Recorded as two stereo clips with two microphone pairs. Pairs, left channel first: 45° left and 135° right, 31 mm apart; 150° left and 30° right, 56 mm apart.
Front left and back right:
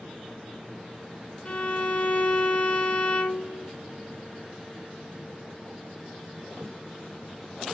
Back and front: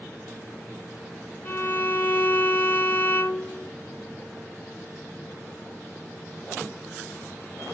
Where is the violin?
100° left, 0.8 m.